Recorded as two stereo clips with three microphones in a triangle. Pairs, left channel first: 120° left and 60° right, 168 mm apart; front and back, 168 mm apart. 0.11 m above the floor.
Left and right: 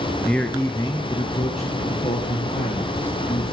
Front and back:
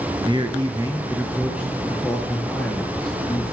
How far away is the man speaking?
About 1.4 m.